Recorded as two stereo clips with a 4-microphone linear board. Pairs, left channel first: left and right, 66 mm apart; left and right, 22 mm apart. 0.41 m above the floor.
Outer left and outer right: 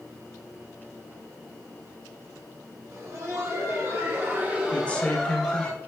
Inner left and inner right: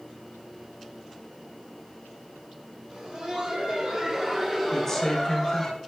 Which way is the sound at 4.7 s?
20° left (ahead or behind).